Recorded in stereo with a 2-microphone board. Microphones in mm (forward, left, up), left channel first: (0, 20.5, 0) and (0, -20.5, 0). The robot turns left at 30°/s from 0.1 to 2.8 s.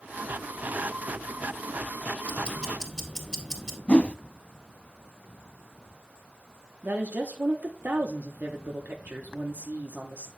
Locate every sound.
2.2 s ticking: 30° left (ahead or behind), 2 m; by 3.8 s 15° left (ahead or behind), 2 m
3.9 s a whoosh: 30° left (ahead or behind), 0.6 m
6.8 s a woman speaking: 45° right (ahead or behind), 1.1 m